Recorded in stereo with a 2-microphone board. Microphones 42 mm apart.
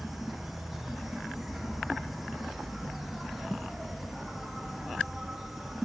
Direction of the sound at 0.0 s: 5° right (ahead or behind).